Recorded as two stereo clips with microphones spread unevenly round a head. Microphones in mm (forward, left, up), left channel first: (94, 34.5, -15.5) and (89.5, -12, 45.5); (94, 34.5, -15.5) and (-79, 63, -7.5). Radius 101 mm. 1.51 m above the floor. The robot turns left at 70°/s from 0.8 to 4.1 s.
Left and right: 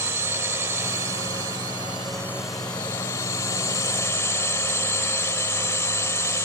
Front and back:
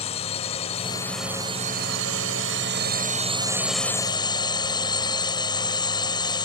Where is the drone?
70° right; by 6.5 s 55° left.